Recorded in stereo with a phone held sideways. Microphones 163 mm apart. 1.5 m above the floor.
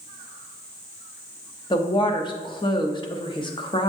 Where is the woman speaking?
30° left (ahead or behind), 0.6 m.